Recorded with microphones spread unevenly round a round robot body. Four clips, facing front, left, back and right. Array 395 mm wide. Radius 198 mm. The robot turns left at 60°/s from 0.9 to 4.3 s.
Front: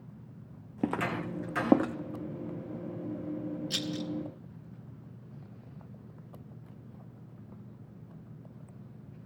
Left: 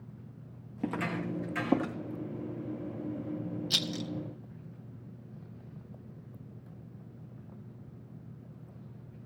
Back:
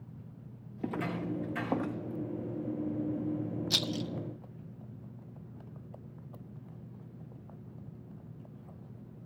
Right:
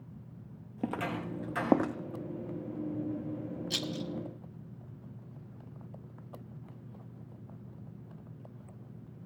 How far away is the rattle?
About 0.9 m.